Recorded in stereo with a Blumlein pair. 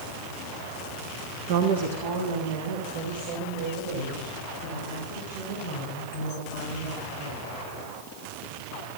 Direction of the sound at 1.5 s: 50° right.